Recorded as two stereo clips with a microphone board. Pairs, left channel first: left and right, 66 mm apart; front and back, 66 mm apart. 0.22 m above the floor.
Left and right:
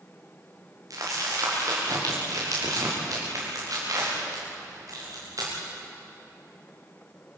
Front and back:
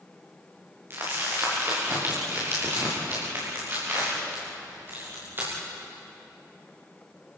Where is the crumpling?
120° right, 9.5 m.